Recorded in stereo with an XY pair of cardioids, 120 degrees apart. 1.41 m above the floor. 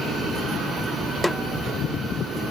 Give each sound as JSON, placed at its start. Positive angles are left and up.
{"t": 1.2, "sound": "a snare drum", "azimuth_deg": 10, "distance_m": 1.1}